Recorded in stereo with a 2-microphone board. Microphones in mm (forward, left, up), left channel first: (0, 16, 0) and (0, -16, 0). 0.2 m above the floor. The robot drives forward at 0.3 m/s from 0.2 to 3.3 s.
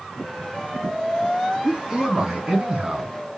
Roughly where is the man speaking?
Centre.